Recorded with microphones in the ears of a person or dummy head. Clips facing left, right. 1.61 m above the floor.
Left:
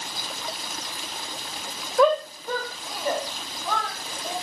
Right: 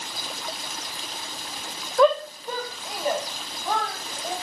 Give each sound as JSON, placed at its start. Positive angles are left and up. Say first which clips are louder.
{"t": 2.0, "sound": "a shout", "louder": "right 1 dB", "side_deg": 0, "distance_m": 0.7}